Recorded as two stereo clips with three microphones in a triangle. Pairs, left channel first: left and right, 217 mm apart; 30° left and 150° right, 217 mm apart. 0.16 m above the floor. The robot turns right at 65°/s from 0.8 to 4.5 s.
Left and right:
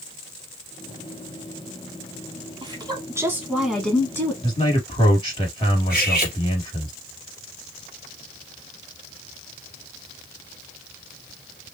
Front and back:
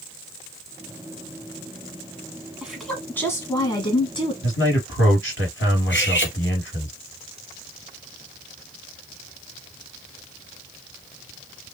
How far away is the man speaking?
About 3.5 m.